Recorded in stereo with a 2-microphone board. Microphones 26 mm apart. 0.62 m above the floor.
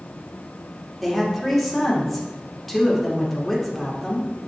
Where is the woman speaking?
5° left (ahead or behind), 2 m.